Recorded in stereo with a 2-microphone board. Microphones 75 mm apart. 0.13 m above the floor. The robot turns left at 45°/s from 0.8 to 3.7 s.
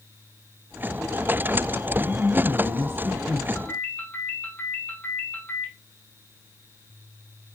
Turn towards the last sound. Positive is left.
turn(degrees=20)  # may be behind; listen again after turning